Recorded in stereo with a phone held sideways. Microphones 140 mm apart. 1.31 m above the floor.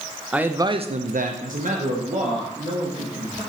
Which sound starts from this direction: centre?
A man speaking, at 0.3 s.